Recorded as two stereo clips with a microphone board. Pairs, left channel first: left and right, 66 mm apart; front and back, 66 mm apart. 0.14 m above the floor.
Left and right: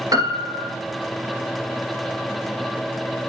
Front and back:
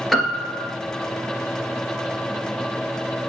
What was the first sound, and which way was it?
A piano, 90° right.